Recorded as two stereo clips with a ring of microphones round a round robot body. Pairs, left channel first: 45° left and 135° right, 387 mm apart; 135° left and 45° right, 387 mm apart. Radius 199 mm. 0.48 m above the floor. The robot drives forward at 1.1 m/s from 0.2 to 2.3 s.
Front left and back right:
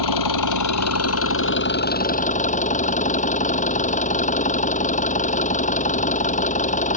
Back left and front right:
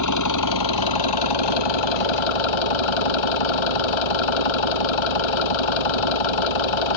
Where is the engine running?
85° left; by 7.0 s 120° left.